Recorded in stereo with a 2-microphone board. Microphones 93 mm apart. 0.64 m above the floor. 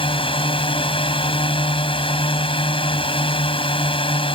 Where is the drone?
80° left.